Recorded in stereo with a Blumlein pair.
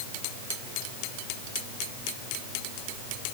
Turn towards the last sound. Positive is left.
No sound to turn to.